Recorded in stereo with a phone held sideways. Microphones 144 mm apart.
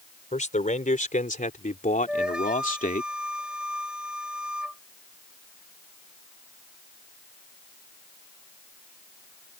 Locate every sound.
0.3 s a man speaking: 60° left (ahead or behind); by 3.1 s 70° left (ahead or behind)
2.1 s a flute: 5° right (ahead or behind)